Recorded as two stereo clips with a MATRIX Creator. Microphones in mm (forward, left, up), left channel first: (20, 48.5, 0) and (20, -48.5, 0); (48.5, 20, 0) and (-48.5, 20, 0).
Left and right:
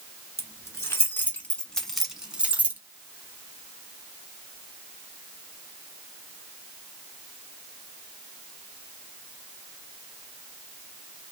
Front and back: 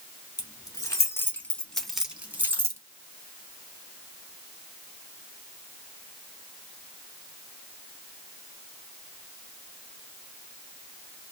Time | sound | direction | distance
0.4 | keys jangling | 40° left | 1.1 m